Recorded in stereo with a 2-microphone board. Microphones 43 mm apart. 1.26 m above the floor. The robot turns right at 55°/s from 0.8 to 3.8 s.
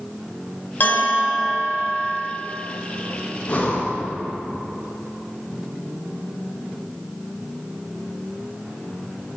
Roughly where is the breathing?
Left.